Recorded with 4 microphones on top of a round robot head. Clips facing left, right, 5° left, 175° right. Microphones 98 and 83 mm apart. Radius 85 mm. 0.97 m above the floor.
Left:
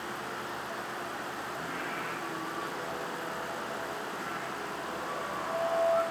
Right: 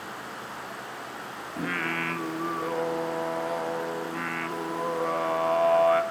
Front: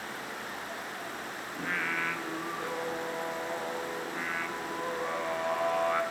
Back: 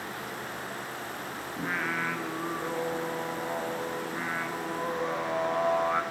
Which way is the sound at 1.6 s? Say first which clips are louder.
Right 6 dB, back 2 dB; 95° right.